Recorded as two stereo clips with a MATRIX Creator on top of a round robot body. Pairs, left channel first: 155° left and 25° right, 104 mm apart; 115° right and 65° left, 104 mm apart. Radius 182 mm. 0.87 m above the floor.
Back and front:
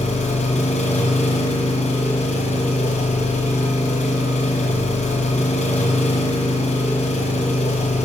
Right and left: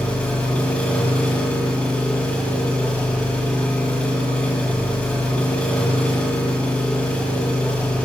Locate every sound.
0.0 s an engine running: 170° left, 1.4 m